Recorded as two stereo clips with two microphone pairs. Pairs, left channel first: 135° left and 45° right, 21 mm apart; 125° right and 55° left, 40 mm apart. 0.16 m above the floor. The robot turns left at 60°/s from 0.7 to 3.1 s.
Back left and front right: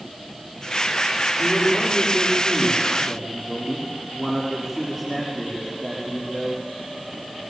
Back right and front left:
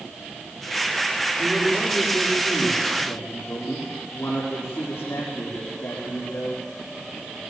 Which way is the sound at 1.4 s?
15° right.